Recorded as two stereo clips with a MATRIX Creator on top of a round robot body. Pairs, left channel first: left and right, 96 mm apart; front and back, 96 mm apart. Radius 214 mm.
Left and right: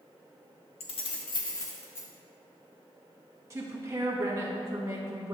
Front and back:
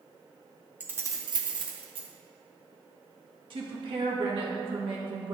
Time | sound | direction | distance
0.8 | keys jangling | 105° left | 0.7 m
3.5 | a woman speaking | 150° right | 1.6 m